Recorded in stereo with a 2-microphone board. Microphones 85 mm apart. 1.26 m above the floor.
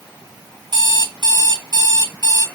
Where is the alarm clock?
55° right (ahead or behind), 1.2 m.